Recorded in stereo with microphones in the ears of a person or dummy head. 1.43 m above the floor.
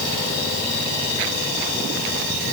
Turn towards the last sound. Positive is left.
No sound to turn to.